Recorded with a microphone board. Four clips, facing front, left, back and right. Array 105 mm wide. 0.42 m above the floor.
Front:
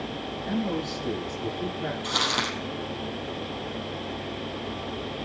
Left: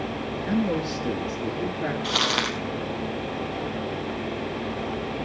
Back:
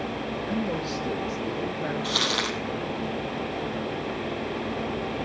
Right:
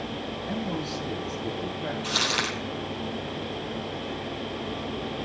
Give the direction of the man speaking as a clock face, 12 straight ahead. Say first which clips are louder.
Left 7 dB, front 2 dB; 9 o'clock.